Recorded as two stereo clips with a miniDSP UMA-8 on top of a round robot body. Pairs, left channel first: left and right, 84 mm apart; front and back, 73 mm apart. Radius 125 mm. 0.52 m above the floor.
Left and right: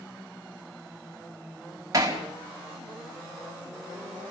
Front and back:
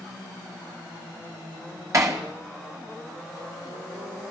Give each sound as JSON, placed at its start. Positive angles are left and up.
{"t": 1.9, "sound": "hammering", "azimuth_deg": -140, "distance_m": 4.5}